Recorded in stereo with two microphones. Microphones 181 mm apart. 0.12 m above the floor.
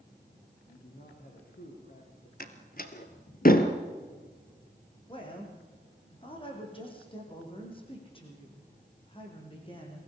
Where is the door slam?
55° left (ahead or behind), 1.8 m.